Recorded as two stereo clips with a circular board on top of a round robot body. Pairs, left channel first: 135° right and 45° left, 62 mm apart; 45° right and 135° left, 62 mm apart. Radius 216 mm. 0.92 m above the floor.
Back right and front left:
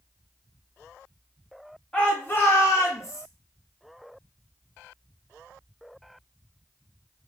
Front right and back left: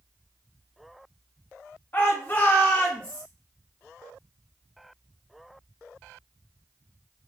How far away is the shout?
About 0.8 m.